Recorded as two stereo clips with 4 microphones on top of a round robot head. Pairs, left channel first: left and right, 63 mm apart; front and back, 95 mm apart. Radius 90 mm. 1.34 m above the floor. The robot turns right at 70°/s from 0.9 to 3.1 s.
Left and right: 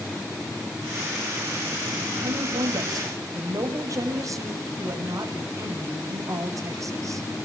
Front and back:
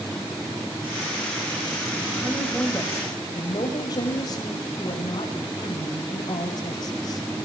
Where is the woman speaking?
115° right, 6 m; by 7.3 s 55° right, 6 m.